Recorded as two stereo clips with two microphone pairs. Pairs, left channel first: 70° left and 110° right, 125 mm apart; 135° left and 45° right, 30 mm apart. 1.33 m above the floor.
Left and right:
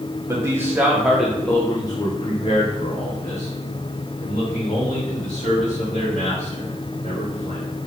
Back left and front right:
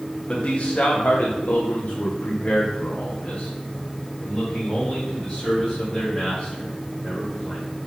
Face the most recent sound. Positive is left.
turn(degrees=65)